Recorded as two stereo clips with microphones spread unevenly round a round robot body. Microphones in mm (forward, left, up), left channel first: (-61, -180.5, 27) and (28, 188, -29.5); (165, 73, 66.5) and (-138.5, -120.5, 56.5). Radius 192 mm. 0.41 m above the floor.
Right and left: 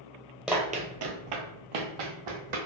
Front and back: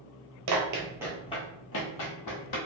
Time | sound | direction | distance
0.5 | running footsteps | 170° left | 0.7 m